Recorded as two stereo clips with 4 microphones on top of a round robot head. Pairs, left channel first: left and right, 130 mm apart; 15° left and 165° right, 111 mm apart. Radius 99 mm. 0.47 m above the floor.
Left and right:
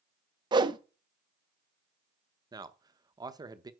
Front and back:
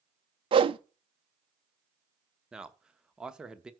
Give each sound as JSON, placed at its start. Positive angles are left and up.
{"t": 0.5, "sound": "a whoosh", "azimuth_deg": -140, "distance_m": 0.7}
{"t": 2.5, "sound": "a man speaking", "azimuth_deg": -90, "distance_m": 0.9}